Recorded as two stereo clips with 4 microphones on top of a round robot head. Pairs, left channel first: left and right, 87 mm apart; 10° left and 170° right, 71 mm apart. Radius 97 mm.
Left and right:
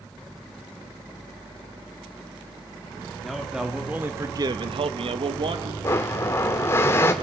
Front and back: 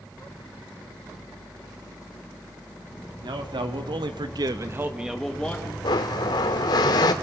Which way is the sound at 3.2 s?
Straight behind.